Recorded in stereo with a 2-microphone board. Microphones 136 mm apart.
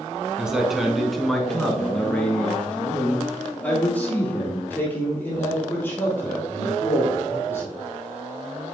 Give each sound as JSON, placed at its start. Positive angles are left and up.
{"t": 0.4, "sound": "a man speaking", "side_deg": -5, "distance_m": 1.2}